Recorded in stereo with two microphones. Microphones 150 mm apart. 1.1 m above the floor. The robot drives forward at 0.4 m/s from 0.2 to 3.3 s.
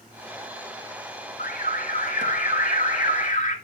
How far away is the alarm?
About 3.5 m.